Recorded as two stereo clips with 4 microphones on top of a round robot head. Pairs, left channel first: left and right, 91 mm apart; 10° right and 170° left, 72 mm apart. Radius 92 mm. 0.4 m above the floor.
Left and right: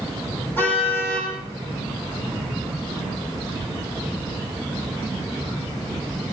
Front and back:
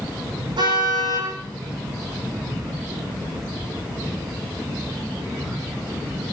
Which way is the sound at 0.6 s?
160° left.